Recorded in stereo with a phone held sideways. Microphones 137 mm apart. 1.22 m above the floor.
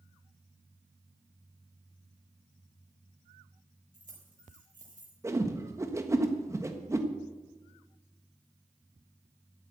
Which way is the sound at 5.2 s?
20° right (ahead or behind).